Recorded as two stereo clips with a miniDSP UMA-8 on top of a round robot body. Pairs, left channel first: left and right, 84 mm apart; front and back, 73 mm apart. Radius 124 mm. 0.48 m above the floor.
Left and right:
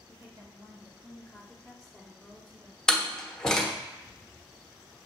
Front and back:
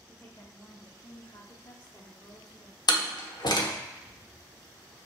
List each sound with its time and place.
0.1 s a woman speaking: 60° right, 1.3 m; by 2.8 s 10° left, 1.9 m
2.9 s a door slam: 5° left, 1.0 m